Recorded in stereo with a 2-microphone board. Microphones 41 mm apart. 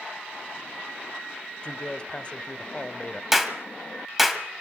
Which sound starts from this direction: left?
A man speaking, at 1.6 s.